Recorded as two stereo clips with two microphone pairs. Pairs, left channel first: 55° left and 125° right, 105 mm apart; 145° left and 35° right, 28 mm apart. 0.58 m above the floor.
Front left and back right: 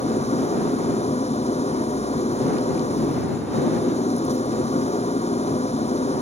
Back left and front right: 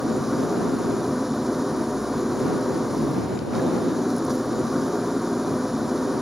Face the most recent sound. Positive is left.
turn(degrees=45)